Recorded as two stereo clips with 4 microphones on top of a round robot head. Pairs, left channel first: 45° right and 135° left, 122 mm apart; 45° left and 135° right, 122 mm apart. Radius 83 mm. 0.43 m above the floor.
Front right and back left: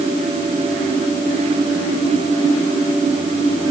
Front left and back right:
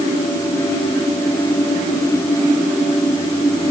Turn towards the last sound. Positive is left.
No sound to turn to.